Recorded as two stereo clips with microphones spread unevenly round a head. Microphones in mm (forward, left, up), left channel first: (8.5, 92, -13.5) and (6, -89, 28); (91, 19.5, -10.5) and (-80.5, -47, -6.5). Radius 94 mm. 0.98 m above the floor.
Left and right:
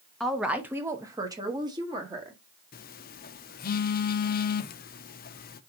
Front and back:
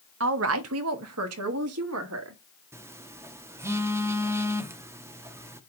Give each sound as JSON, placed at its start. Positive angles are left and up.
{"t": 0.2, "sound": "a woman speaking", "azimuth_deg": 175, "distance_m": 0.6}
{"t": 2.7, "sound": "a phone buzzing", "azimuth_deg": 130, "distance_m": 0.5}